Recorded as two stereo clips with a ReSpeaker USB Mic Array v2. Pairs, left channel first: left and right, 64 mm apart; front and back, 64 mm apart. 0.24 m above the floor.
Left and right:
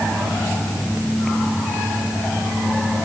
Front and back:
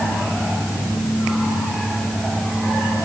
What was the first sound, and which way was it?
Only background noise.